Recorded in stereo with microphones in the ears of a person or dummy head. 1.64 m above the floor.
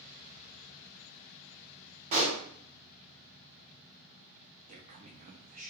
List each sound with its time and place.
2.1 s a pop: 35° right (ahead or behind), 1.1 m
4.7 s a man speaking: 40° right (ahead or behind), 0.6 m